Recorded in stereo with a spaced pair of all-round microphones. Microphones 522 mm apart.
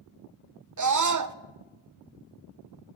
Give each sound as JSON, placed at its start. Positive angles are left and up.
{"t": 0.8, "sound": "a scream", "side_deg": -40, "distance_m": 0.5}